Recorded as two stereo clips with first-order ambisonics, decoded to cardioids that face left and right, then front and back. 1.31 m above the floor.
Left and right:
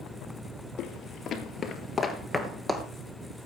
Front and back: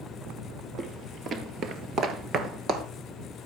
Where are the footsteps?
130° left, 1.9 m; by 2.9 s 160° right, 1.5 m.